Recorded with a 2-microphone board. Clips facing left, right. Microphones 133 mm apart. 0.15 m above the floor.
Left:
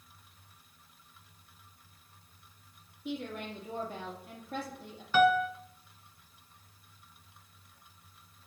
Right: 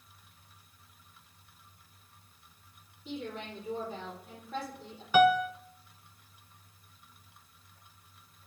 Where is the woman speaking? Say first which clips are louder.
Left 2 dB; 65° left (ahead or behind), 3.5 m.